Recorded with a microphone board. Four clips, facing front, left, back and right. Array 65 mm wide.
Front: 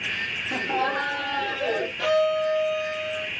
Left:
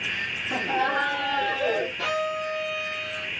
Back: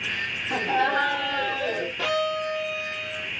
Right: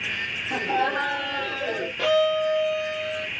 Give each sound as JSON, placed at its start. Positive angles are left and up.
{"t": 0.5, "sound": "laughter", "azimuth_deg": -170, "distance_m": 2.0}
{"t": 2.0, "sound": "a violin", "azimuth_deg": -125, "distance_m": 2.0}